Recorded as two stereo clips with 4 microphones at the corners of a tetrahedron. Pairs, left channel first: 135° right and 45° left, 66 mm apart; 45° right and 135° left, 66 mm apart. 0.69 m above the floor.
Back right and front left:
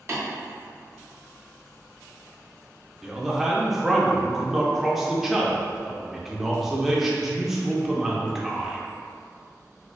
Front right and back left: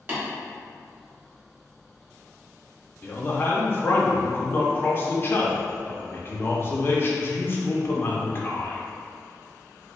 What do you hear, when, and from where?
0.1 s tapping: 85° left, 1.9 m
3.0 s a man speaking: 40° right, 0.5 m